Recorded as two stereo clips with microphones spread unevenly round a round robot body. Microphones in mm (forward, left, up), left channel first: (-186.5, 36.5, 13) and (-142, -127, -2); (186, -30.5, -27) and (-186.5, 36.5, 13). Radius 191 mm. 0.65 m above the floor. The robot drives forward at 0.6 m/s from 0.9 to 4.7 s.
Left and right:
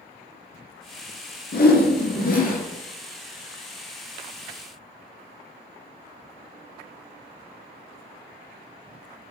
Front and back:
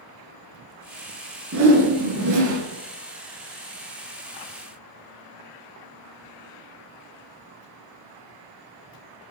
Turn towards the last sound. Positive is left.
turn(degrees=150)